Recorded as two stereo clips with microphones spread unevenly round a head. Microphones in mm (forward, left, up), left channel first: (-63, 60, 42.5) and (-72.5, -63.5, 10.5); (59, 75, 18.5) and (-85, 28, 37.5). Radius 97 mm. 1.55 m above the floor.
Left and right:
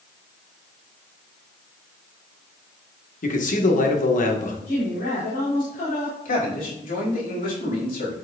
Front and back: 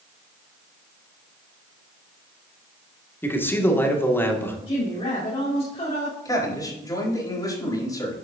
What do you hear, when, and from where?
3.2 s a man speaking: 95° left, 2 m
4.7 s a woman speaking: 70° left, 4.5 m
6.2 s a man speaking: 85° left, 4.5 m